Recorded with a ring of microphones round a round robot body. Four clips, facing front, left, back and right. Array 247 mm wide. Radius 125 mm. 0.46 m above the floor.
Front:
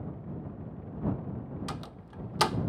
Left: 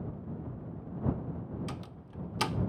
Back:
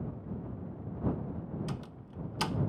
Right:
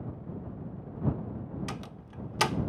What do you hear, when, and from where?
1.7 s a door slam: 35° right